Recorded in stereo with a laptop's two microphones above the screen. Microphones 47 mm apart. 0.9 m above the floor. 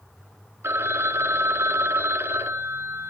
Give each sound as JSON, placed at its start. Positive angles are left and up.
{"t": 0.6, "sound": "a phone ringing", "side_deg": -65, "distance_m": 1.5}